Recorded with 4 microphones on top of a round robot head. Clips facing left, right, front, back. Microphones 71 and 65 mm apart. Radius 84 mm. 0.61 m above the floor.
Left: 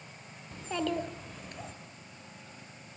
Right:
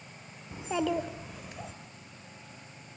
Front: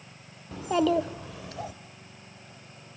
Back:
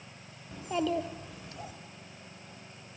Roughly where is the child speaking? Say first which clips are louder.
Right 3 dB, front 7 dB; ahead.